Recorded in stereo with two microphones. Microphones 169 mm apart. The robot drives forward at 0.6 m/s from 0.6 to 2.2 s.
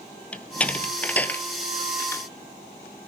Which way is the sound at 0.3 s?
10° left (ahead or behind).